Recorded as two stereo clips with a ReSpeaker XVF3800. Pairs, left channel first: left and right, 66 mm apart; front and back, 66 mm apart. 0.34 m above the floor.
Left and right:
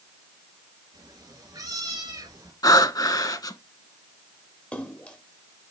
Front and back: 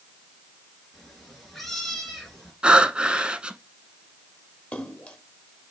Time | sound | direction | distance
0.9 | a cat meowing | 85° right | 3 m
2.6 | breathing | 105° left | 0.7 m
4.7 | a splash | 45° left | 1.4 m